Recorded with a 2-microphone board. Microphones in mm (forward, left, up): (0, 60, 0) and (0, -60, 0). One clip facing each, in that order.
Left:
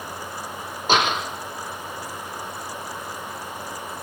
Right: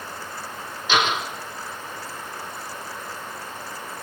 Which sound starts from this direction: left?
A door slam, at 0.9 s.